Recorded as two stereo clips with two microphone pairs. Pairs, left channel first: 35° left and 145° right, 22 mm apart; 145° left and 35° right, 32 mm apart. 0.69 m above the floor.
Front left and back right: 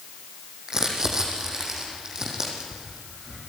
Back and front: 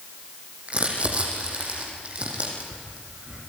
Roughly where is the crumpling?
Right.